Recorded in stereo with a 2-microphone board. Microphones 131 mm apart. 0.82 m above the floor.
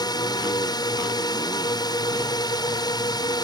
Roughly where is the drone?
Left.